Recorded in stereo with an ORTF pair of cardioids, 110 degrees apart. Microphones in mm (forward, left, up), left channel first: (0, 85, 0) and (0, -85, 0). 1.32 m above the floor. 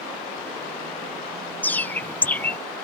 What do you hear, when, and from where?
1.6 s a bird: 10° left